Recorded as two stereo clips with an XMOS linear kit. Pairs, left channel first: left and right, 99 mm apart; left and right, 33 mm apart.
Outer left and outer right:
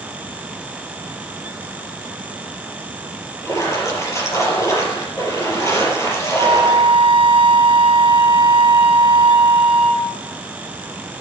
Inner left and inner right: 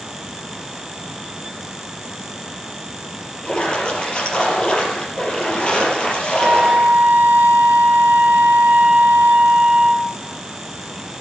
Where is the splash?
30° left (ahead or behind), 5 m.